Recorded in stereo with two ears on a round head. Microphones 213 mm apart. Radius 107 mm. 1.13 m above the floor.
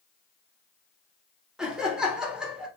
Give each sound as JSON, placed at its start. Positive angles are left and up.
{"t": 1.6, "sound": "laughter", "side_deg": -5, "distance_m": 0.8}